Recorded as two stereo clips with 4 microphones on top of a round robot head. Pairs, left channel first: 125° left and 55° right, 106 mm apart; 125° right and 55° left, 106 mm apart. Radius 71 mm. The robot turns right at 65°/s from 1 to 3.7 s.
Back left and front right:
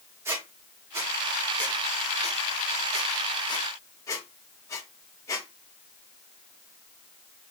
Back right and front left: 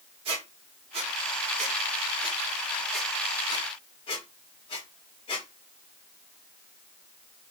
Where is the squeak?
15° left, 1.1 m; by 5.5 s 170° right, 1.1 m.